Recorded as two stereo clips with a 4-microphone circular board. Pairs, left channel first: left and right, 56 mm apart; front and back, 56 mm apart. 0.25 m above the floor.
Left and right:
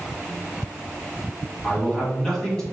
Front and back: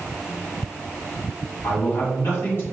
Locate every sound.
1.6 s a man speaking: 15° left, 1.9 m